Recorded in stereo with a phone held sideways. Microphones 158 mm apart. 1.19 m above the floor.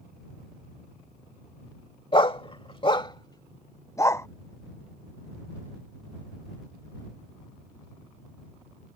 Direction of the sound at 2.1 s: 35° left (ahead or behind).